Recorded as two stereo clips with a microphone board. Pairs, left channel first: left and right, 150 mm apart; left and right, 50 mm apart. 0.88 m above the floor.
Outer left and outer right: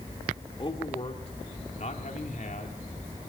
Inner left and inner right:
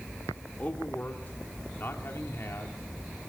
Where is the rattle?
No rattle in this recording.